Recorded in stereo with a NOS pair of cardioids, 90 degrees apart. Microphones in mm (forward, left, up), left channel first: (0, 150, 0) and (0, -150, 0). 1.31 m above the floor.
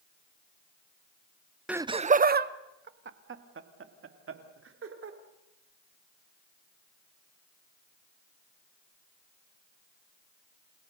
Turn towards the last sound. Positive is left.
turn(degrees=-45)